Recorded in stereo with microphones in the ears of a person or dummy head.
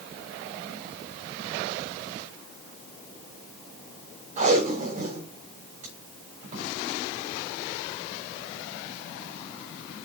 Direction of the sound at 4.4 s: 40° right (ahead or behind).